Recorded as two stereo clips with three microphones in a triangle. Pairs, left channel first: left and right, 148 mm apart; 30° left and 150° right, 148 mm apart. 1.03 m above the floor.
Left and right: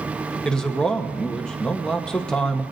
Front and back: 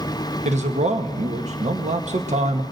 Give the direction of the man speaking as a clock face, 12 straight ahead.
6 o'clock.